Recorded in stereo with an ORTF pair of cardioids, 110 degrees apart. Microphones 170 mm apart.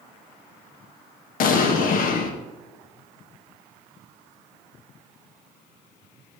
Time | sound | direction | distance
1.4 | an explosion | 60° left | 1.6 m